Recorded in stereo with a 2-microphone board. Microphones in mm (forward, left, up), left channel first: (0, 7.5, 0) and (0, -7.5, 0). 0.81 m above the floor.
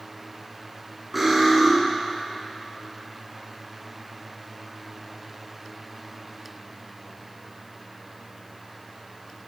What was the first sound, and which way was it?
Cutlery clinking, 5° left (ahead or behind).